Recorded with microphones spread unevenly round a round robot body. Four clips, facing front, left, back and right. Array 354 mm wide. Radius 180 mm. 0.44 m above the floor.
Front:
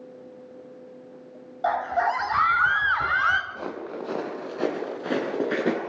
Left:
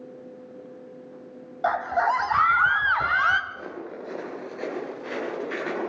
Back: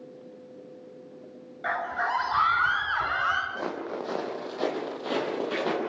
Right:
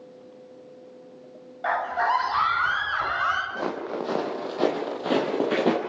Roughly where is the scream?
Left.